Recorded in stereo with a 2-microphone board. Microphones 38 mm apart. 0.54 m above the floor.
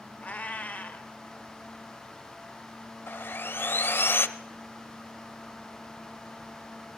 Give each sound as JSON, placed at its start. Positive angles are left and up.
{"t": 0.2, "sound": "a cat meowing", "side_deg": 35, "distance_m": 0.8}
{"t": 3.1, "sound": "sawing", "side_deg": 65, "distance_m": 0.6}